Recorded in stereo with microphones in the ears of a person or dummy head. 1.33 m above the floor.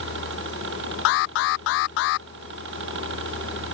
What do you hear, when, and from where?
0.0 s a helicopter: 60° right (ahead or behind)
1.1 s an alarm: 55° left (ahead or behind)